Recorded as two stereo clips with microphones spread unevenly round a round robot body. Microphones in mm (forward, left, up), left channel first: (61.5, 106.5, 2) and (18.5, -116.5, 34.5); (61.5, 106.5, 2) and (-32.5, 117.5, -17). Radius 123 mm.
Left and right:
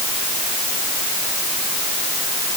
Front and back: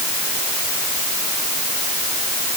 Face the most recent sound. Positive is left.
No sound to turn to.